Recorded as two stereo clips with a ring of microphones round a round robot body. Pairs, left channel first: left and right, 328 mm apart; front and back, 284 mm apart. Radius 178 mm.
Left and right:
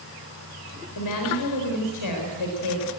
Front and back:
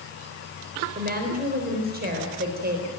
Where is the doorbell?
I don't hear a doorbell.